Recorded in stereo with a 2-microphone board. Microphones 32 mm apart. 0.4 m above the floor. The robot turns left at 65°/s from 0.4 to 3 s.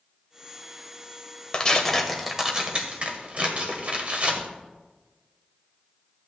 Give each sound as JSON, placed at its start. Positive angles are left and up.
{"t": 1.5, "sound": "tearing paper", "side_deg": 25, "distance_m": 1.3}